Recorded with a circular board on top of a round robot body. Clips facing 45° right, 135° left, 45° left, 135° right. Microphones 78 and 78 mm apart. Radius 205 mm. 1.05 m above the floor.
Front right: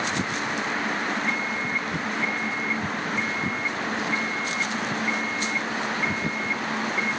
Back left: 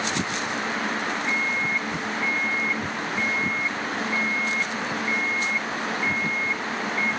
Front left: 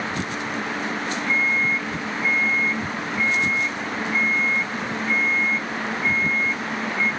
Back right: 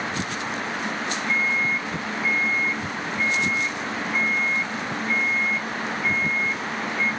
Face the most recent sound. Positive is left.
turn(degrees=55)